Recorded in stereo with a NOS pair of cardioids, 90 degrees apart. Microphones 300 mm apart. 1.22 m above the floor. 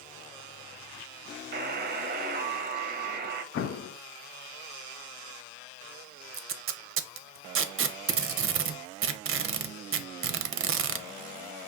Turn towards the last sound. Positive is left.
turn(degrees=-45)